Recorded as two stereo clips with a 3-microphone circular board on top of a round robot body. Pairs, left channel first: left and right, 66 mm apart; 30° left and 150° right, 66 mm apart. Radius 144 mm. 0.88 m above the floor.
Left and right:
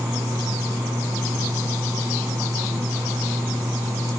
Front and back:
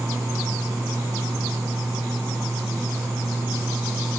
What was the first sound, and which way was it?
Only background noise.